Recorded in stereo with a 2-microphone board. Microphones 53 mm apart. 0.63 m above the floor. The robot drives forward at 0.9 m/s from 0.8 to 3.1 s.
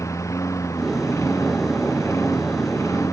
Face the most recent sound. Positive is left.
turn(degrees=70)  # may be behind; listen again after turning